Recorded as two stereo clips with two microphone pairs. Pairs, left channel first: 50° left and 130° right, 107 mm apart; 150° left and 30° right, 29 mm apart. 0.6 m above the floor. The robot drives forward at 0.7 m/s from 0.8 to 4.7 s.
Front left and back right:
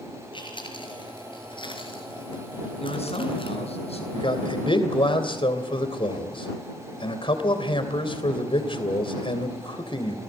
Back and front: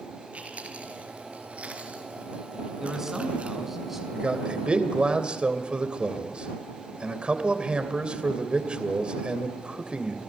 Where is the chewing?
10° left, 5 m; by 3.6 s 20° left, 3 m.